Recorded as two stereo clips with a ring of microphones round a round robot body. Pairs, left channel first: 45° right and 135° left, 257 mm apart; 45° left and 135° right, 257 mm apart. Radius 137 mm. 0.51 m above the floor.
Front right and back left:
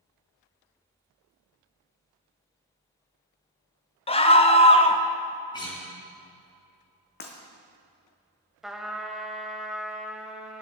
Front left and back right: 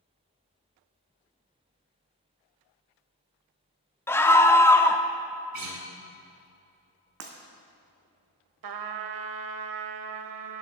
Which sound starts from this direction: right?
Breaking glass, at 7.2 s.